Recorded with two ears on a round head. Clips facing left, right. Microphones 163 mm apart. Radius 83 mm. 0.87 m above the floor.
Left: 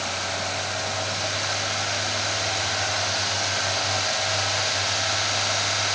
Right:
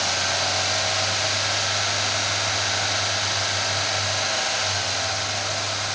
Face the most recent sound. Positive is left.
No sound to turn to.